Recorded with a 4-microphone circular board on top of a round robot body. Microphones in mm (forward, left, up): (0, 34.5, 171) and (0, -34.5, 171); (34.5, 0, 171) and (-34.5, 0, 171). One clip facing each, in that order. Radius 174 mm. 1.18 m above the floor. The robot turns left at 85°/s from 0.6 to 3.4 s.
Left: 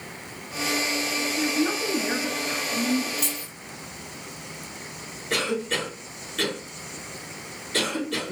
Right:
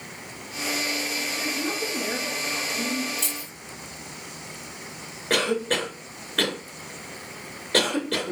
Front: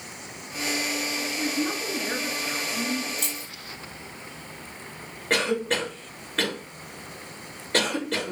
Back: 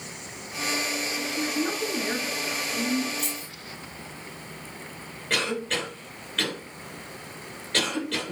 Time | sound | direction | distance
1.4 | a woman speaking | 170° left | 2.5 m
3.2 | keys jangling | 10° left | 1.5 m
5.3 | a cough | 55° right | 2 m